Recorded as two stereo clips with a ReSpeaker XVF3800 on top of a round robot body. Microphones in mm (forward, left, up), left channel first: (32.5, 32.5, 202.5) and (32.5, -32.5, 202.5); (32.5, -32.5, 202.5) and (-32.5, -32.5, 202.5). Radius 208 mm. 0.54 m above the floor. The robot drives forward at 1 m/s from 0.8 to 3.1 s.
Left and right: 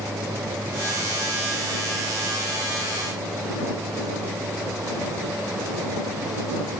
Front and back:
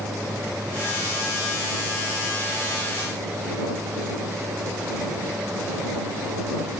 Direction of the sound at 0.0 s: 105° right.